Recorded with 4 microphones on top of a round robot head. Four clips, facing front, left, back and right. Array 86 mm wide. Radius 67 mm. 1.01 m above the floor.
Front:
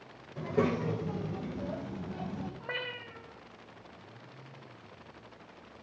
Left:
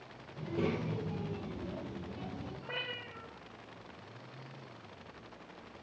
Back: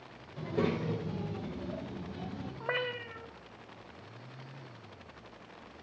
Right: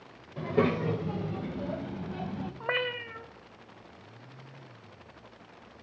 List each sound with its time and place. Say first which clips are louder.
0.4 s a child speaking: right 8 dB, front 2 dB; 70° right, 3.5 m; by 2.5 s 65° right, 5.5 m
2.6 s a cat meowing: right 13 dB, back 4 dB; 110° right, 2 m